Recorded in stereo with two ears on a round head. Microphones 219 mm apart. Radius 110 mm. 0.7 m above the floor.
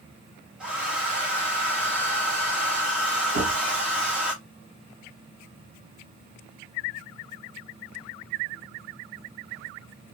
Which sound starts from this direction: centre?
A hair dryer, at 0.6 s.